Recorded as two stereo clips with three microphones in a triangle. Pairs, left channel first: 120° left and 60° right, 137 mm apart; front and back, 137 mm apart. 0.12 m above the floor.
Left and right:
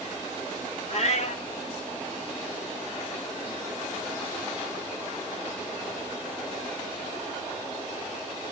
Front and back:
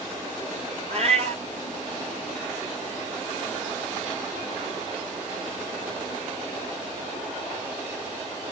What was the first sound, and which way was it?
A cat meowing, 145° left.